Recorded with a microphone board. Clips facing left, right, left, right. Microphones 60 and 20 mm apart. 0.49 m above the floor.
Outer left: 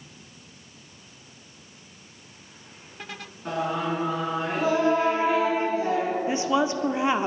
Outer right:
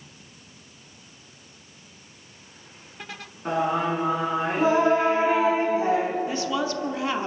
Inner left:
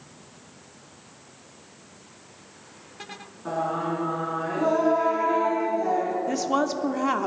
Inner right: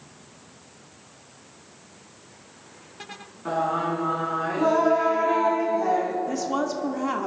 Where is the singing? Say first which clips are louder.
Outer right 3 dB, inner right 2 dB; 25° right (ahead or behind), 4 m.